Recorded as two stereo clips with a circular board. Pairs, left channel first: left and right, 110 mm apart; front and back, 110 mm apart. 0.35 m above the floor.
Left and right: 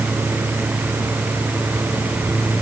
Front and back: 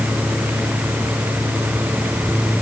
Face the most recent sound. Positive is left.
No sound to turn to.